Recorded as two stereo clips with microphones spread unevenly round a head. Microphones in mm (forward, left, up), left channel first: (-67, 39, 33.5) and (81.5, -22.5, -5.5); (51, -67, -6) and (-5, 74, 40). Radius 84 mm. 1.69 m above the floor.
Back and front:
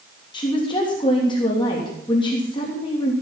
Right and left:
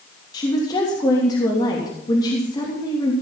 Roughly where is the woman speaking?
Behind right.